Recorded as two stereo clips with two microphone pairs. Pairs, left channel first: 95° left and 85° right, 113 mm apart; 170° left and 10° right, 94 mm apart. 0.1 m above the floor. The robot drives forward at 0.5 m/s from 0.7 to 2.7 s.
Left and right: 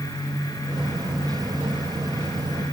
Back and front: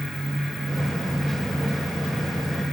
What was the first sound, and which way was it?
Only background noise.